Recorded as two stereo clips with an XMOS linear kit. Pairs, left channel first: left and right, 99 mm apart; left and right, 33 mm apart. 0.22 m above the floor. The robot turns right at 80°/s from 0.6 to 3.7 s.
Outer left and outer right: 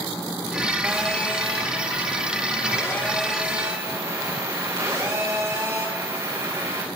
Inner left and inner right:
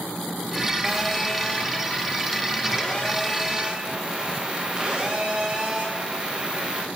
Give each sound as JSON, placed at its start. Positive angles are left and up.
{"t": 0.8, "sound": "a phone buzzing", "azimuth_deg": -15, "distance_m": 6.0}